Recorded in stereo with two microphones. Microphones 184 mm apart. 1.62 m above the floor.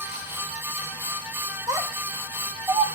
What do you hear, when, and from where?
1.7 s a child speaking: 15° right (ahead or behind), 1.6 m; by 2.9 s 20° right (ahead or behind), 0.7 m